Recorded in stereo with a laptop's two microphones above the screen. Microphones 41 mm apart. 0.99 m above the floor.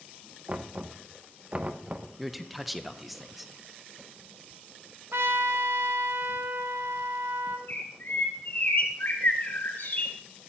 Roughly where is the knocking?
Right.